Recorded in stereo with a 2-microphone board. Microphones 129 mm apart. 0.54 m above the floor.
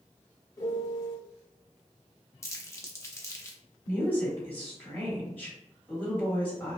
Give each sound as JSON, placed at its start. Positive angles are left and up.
{"t": 0.6, "sound": "a piano", "side_deg": 25, "distance_m": 0.7}
{"t": 2.4, "sound": "crumpling", "side_deg": 20, "distance_m": 0.6}
{"t": 3.9, "sound": "a woman speaking", "side_deg": 15, "distance_m": 1.7}